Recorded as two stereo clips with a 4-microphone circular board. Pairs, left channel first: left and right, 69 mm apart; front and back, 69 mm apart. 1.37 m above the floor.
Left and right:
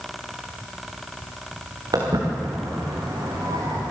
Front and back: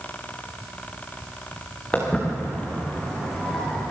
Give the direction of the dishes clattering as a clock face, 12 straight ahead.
I don't hear dishes clattering.